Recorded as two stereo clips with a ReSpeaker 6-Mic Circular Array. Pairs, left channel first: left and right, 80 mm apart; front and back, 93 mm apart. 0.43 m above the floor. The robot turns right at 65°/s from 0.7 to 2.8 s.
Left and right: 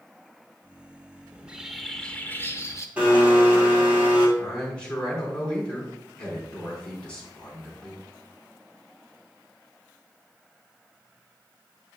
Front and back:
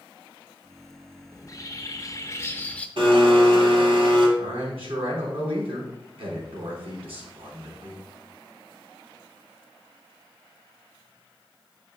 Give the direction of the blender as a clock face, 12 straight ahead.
5 o'clock.